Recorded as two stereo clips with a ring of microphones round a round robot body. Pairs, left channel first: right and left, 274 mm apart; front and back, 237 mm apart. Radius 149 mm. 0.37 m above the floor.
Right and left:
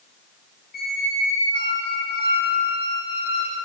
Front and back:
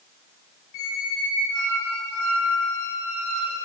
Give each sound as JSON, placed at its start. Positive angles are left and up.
{"t": 0.7, "sound": "a squeak", "azimuth_deg": -30, "distance_m": 2.5}